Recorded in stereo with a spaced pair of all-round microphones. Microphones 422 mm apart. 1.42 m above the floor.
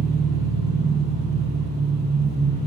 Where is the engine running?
35° right (ahead or behind), 3 m.